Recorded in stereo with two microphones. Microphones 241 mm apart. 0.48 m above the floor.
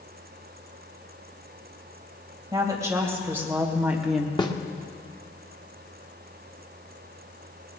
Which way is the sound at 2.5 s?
15° right (ahead or behind).